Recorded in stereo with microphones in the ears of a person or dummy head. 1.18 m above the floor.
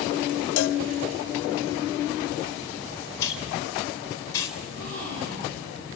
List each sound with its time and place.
0.6 s a cowbell: 80° left, 1.0 m
3.2 s a hiss: 20° left (ahead or behind), 4 m
4.6 s a gasp: 70° right (ahead or behind), 9 m